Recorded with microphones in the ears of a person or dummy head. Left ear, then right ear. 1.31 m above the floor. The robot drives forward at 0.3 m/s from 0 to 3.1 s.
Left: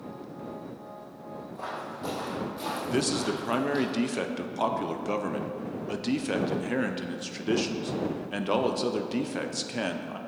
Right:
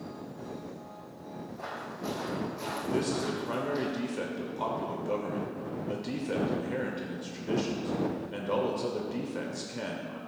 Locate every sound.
1.6 s footsteps: 35° left (ahead or behind), 2.5 m; by 3.9 s 55° left (ahead or behind), 2 m
2.9 s a man speaking: 30° left (ahead or behind), 0.6 m